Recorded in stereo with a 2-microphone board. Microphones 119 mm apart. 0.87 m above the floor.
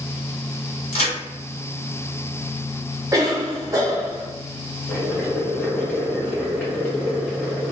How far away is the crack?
About 1.5 m.